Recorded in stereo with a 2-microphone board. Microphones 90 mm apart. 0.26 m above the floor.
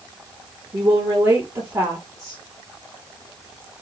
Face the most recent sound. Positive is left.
turn(degrees=-35)  # may be behind; listen again after turning